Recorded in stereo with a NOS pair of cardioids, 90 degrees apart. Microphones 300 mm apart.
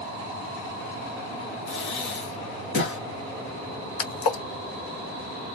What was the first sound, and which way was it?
Breathing, 40° left.